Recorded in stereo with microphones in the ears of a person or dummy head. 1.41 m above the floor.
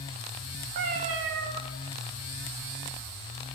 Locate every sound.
0.8 s a cat meowing: 25° right (ahead or behind), 0.8 m